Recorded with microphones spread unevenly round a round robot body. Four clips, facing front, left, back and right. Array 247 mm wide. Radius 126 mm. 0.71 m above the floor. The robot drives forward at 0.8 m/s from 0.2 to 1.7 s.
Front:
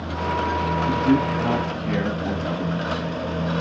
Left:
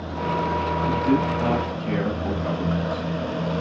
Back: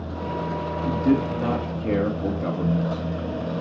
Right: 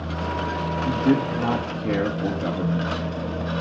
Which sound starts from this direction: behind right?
A man speaking, at 0.8 s.